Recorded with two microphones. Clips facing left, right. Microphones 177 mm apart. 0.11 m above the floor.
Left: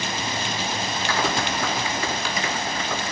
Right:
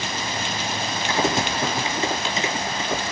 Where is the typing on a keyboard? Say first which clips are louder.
Right 3 dB; 20° right (ahead or behind), 1.3 m.